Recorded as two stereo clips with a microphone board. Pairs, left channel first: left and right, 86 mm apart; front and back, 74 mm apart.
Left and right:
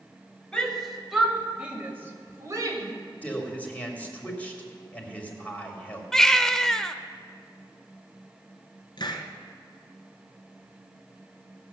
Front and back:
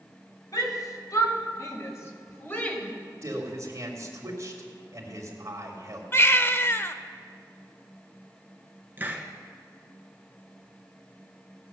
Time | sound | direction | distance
0.5 | a shout | 10° left | 2.5 m
3.2 | a man speaking | 155° left | 2 m
6.1 | a baby crying | 10° left | 0.6 m
9.0 | a hiss | 115° left | 1.4 m